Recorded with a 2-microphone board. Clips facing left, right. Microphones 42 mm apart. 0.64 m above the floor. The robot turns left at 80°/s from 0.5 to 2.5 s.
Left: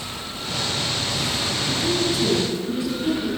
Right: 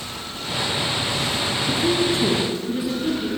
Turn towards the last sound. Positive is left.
turn(degrees=-160)